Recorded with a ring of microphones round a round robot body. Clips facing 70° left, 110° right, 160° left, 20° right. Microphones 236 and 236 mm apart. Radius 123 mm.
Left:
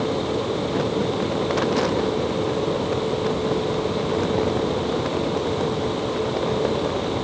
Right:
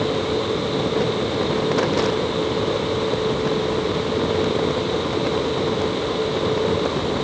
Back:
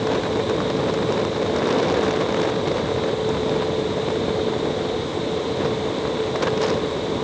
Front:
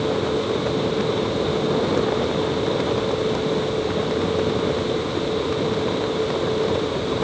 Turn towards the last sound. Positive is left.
No sound to turn to.